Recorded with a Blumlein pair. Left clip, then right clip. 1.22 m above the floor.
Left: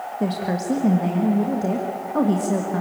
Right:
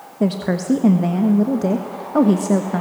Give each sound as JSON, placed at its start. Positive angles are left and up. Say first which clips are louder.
{"t": 0.2, "sound": "a woman speaking", "louder": "right 5 dB", "azimuth_deg": -15, "distance_m": 1.5}